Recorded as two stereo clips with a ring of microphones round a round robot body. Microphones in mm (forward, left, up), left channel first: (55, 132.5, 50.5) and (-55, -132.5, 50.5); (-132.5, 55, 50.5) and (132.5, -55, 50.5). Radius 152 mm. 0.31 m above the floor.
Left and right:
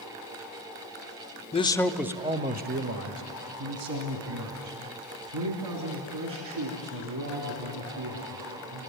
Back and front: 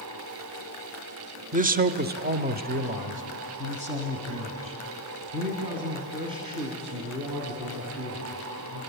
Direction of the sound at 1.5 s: 20° left.